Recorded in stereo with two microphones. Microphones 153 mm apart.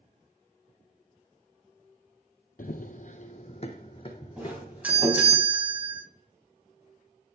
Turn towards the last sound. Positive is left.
turn(degrees=-10)  # may be behind; listen again after turning